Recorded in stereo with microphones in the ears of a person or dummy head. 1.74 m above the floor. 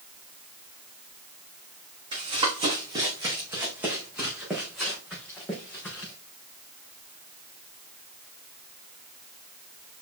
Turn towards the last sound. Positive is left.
turn(degrees=15)  # may be behind; listen again after turning